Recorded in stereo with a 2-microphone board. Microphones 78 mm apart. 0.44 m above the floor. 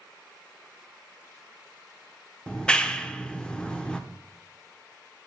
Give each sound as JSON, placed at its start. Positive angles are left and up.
{"t": 2.5, "sound": "a clap", "side_deg": 15, "distance_m": 0.7}